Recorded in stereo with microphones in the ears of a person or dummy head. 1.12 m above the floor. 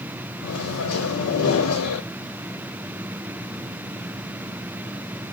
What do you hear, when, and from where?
0.4 s a microwave: 85° left, 0.8 m